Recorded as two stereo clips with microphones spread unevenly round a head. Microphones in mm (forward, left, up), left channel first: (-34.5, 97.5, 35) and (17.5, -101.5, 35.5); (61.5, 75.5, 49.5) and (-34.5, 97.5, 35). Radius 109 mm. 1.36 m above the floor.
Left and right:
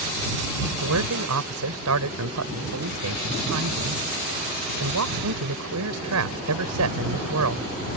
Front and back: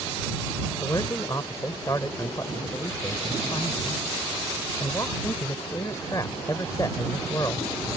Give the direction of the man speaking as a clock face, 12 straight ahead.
3 o'clock.